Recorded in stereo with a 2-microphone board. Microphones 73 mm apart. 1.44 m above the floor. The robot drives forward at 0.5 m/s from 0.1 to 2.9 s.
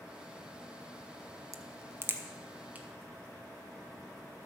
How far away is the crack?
About 0.6 m.